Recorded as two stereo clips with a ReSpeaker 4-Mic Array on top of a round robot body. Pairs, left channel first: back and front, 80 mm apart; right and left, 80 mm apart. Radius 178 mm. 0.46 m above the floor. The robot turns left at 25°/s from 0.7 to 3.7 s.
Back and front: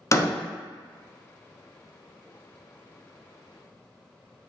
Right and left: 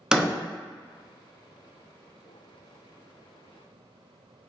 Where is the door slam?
165° left, 0.6 m.